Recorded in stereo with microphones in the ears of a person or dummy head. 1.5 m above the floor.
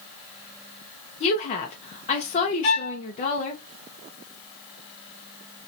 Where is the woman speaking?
35° left (ahead or behind), 0.7 m.